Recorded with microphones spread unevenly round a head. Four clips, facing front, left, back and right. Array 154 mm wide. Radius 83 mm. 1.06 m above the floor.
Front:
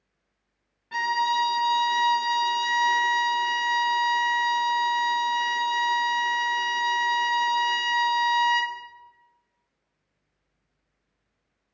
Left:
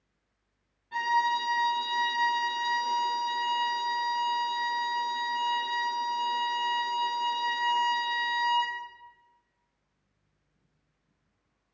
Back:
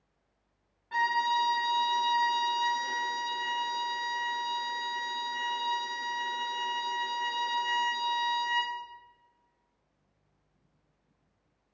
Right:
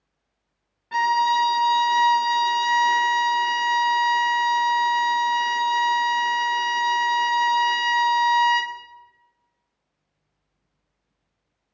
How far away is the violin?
About 0.8 m.